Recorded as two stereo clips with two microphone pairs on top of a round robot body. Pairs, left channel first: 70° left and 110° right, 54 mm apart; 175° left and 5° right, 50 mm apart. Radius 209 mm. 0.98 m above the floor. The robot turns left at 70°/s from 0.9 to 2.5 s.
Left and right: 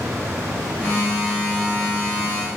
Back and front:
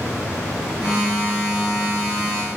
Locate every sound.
Only background noise.